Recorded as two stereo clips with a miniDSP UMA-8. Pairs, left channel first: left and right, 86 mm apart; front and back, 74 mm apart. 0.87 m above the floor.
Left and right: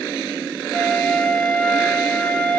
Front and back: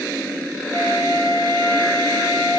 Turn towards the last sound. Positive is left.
turn(degrees=165)